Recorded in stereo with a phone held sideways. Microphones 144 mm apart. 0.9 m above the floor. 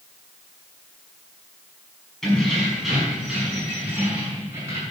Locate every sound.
2.2 s keys jangling: 5° left (ahead or behind), 4.5 m; by 4.8 s 20° right (ahead or behind), 5 m